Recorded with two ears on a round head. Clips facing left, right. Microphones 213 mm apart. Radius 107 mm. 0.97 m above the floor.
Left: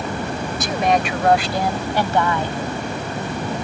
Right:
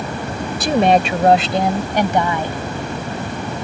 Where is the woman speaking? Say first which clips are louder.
Right 6 dB; 30° right (ahead or behind); by 2.6 s 15° right (ahead or behind).